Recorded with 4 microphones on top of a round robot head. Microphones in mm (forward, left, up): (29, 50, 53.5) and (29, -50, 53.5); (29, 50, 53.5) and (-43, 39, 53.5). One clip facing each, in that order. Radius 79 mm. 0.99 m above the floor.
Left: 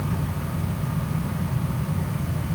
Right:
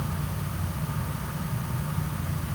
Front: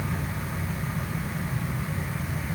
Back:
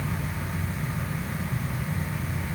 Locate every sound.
Only background noise.